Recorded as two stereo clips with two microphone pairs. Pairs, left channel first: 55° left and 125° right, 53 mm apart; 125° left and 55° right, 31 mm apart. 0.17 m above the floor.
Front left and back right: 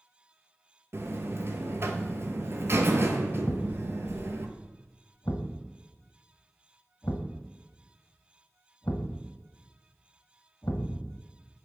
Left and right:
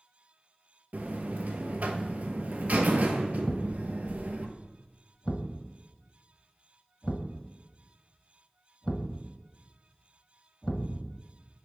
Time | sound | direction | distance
0.9 | a buzzer | 85° right | 0.7 m
3.5 | a thud | 70° left | 0.8 m